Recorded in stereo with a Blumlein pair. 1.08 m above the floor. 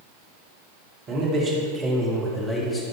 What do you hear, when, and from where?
1.1 s a man speaking: 35° right, 2.5 m; by 2.8 s 20° left, 1.8 m